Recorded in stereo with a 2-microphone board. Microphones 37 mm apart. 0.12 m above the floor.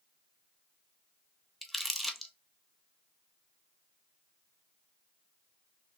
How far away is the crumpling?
About 0.8 m.